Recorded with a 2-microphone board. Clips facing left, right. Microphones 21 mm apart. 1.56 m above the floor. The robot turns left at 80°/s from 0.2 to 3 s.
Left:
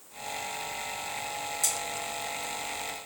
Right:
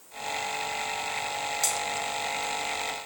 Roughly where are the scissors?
Right.